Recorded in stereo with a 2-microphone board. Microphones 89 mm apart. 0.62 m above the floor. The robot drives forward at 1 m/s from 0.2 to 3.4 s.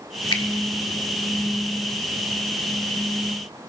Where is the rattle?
No rattle in this recording.